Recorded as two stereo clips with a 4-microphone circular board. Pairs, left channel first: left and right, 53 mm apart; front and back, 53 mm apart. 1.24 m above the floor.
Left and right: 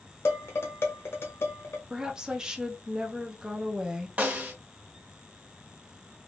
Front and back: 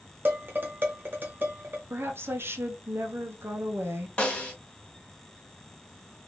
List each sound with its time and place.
0.2 s dishes clattering: 130° left, 0.8 m
1.9 s a woman speaking: 165° right, 0.7 m
4.2 s a snare drum: 50° right, 1.1 m